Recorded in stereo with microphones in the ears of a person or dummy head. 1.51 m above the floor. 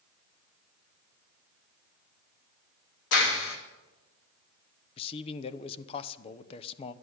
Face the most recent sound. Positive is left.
turn(degrees=30)  # may be behind; listen again after turning